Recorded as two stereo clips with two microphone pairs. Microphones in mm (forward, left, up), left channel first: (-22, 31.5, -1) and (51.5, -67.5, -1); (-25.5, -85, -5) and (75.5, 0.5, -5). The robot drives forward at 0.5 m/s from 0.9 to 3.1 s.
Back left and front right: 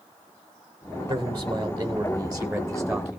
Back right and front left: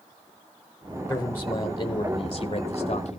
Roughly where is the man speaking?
Right.